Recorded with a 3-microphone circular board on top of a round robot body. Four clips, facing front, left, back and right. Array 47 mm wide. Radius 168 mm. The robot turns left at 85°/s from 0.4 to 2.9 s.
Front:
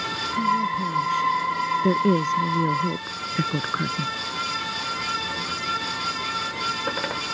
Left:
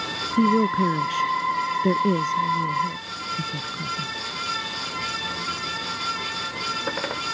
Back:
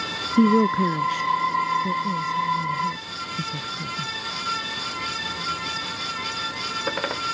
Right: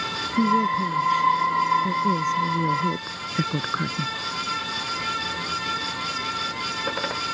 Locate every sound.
0.4 s a woman speaking: 170° left; by 4.1 s 45° right